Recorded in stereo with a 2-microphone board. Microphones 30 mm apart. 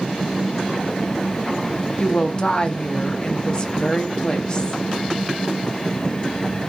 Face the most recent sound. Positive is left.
turn(degrees=25)  # may be behind; listen again after turning